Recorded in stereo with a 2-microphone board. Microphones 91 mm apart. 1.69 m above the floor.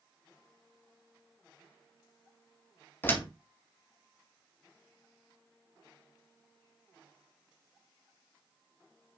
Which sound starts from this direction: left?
A door slam, at 3.0 s.